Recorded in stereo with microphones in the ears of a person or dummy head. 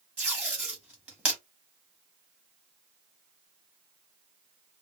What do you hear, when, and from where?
0.2 s tape being pulled: centre (ahead or behind), 1.2 m